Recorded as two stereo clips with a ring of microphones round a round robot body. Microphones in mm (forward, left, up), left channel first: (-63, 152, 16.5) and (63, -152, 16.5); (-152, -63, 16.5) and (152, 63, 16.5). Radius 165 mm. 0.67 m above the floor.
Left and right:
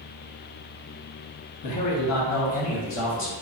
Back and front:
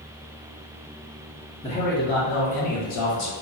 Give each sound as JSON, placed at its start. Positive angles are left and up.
{"t": 1.6, "sound": "a man speaking", "azimuth_deg": 130, "distance_m": 0.8}